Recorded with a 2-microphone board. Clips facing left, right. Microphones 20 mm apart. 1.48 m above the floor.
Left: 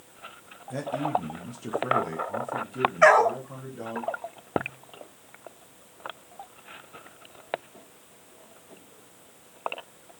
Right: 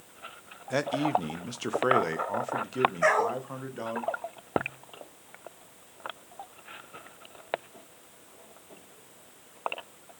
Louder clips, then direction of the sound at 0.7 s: Right 1 dB; 60° right (ahead or behind).